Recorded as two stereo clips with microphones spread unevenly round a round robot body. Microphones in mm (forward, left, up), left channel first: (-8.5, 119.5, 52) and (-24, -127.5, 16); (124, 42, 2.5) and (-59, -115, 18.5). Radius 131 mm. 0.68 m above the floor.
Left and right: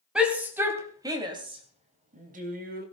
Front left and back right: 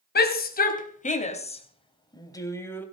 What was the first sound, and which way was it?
A shout, 10° right.